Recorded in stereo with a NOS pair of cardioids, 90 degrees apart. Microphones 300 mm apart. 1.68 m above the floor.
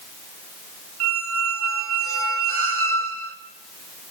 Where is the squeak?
55° right, 2.5 m.